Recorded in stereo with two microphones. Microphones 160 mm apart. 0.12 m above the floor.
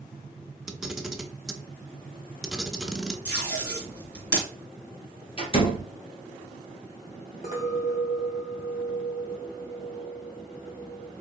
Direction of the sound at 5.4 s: 40° left (ahead or behind).